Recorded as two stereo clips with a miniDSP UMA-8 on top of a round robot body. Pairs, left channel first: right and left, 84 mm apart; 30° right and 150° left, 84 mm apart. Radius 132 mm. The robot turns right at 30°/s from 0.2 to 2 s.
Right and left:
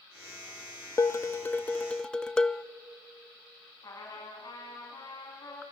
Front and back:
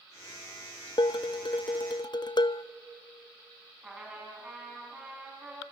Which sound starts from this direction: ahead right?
Dishes clattering, at 1.0 s.